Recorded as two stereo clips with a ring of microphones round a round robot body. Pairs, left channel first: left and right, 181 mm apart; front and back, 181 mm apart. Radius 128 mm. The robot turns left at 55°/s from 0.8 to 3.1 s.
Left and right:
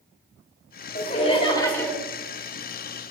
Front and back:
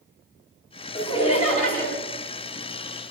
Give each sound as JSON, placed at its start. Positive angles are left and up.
{"t": 0.9, "sound": "laughter", "azimuth_deg": 60, "distance_m": 1.9}